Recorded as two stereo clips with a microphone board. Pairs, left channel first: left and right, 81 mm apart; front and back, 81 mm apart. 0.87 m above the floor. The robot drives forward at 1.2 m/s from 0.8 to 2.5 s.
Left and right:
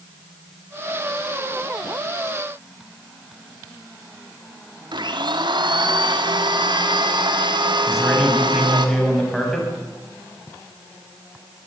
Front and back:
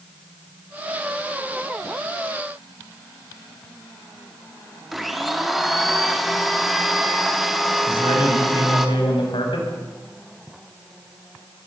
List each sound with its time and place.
4.9 s a blender: 90° right, 2.5 m
7.9 s a man speaking: 5° left, 7 m